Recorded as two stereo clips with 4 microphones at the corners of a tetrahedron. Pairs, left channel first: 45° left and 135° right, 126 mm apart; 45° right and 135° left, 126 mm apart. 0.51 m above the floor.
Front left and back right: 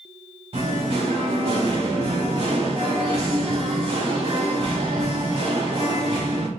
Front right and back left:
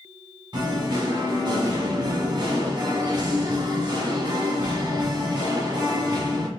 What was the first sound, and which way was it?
Singing, 170° right.